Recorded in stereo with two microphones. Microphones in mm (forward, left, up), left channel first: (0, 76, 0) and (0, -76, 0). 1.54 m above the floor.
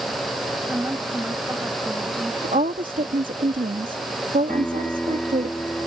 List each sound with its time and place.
0.7 s a woman speaking: 15° right (ahead or behind)
2.4 s a woman speaking: 65° right (ahead or behind)
4.5 s a piano: 5° left (ahead or behind)